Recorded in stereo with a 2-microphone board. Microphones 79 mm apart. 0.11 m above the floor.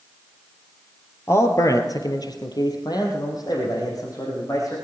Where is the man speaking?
35° left (ahead or behind), 2 m; by 4.8 s 45° left (ahead or behind), 5.5 m.